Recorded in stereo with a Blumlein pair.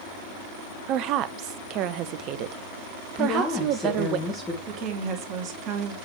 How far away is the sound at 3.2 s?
About 3 m.